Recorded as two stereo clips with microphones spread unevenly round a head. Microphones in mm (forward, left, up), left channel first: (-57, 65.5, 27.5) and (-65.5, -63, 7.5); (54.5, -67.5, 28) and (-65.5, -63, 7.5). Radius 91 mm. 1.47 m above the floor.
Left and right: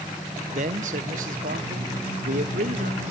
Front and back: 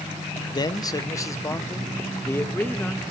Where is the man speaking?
55° right, 1.3 m; by 3.0 s 80° right, 2.5 m.